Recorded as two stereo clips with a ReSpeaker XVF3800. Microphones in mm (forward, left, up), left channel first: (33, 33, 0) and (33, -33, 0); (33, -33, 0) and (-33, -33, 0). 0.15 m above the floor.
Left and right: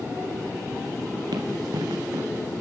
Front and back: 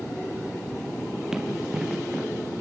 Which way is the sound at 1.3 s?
100° right.